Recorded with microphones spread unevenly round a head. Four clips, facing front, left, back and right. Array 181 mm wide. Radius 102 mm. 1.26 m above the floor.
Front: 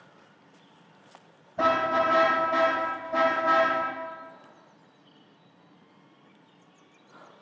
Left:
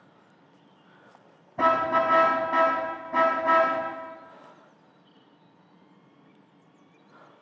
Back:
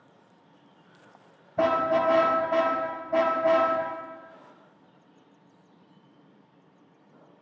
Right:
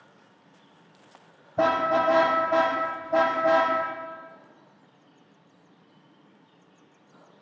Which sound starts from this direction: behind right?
A car horn, at 1.6 s.